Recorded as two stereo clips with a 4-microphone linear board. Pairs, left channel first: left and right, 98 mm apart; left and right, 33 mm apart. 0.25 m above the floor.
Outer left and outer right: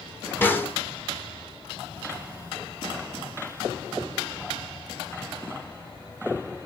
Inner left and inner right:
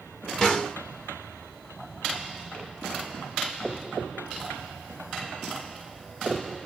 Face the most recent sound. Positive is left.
turn(degrees=20)  # may be behind; listen again after turning